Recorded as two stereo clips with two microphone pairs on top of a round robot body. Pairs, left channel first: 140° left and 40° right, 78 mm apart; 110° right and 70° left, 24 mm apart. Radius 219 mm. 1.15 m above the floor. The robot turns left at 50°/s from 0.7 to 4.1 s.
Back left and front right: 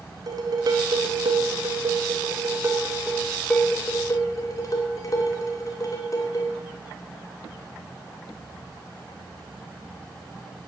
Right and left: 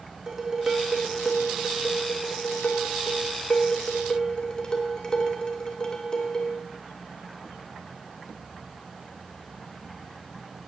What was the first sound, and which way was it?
Dishes clattering, straight ahead.